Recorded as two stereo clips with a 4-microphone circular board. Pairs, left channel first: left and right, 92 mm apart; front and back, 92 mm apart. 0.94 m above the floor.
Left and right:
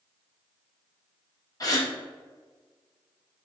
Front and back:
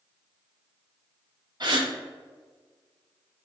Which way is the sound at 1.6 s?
140° left.